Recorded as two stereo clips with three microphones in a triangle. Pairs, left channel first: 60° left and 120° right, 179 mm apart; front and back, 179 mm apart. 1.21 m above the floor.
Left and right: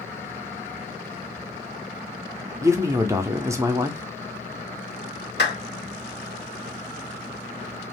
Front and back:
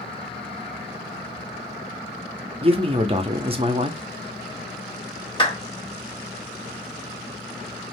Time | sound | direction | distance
2.6 | a man speaking | 175° right | 0.5 m
5.4 | a clap | 65° left | 1.4 m